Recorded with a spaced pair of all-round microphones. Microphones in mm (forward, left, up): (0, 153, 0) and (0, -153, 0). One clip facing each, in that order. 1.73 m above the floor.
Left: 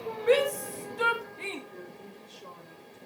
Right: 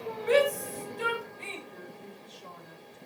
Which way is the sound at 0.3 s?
75° left (ahead or behind).